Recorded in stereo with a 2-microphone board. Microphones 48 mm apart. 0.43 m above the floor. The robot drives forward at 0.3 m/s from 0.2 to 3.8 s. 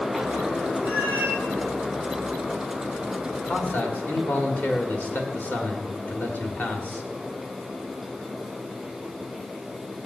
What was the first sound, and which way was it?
A cat meowing, 35° left (ahead or behind).